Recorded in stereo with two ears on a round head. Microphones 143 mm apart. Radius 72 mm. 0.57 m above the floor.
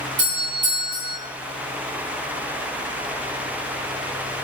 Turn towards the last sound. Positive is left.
turn(degrees=-30)  # may be behind; listen again after turning